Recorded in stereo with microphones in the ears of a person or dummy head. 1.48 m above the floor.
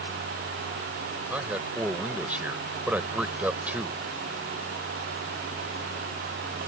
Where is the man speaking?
5° right (ahead or behind).